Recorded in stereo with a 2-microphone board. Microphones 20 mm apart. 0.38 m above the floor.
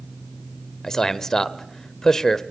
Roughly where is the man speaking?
Left.